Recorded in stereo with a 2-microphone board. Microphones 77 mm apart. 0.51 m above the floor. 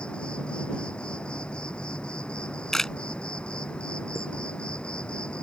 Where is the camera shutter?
5° left (ahead or behind).